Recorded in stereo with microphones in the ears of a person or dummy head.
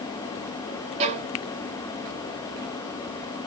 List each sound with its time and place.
1.0 s a violin: 40° right (ahead or behind), 0.6 m